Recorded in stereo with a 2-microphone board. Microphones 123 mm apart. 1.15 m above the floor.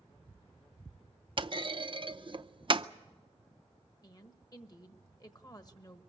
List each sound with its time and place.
1.4 s a clunk: 45° right (ahead or behind), 0.5 m
4.0 s a woman speaking: 35° left (ahead or behind), 1.2 m